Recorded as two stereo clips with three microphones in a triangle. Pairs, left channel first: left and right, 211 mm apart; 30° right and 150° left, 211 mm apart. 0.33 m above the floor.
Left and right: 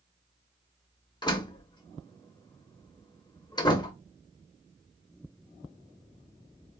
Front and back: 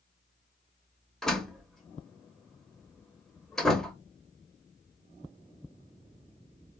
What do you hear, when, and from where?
1.2 s a door slam: 55° left, 0.6 m